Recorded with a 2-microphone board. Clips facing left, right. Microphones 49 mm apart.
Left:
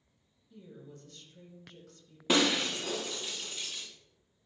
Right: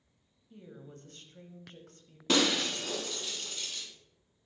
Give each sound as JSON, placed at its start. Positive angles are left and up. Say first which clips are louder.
{"t": 0.5, "sound": "a woman speaking", "louder": "right 1 dB", "side_deg": -40, "distance_m": 1.2}
{"t": 2.3, "sound": "breaking glass", "louder": "left 1 dB", "side_deg": 15, "distance_m": 1.6}